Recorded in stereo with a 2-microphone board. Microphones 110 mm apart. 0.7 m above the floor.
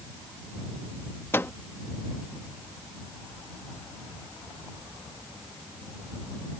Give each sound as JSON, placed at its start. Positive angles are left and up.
{"t": 1.3, "sound": "a microwave", "side_deg": 20}